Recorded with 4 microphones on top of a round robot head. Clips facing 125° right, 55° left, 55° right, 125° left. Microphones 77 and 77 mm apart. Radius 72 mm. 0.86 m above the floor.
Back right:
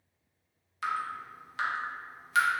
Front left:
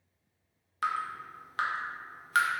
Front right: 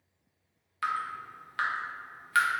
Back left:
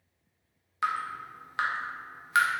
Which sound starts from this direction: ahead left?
Dripping, at 0.8 s.